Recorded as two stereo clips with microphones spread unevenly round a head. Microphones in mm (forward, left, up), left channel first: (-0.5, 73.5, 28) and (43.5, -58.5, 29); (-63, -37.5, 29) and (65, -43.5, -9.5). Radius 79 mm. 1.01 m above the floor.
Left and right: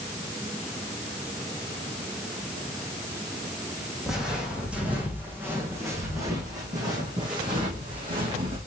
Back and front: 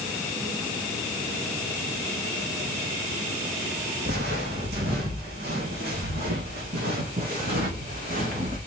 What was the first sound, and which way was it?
Footsteps, 15° left.